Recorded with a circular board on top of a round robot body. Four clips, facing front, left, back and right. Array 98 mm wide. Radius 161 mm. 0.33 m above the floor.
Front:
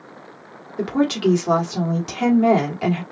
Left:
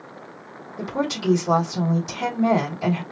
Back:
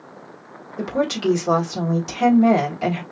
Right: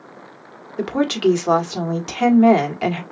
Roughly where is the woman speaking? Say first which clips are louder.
Right 7 dB, front 3 dB; right.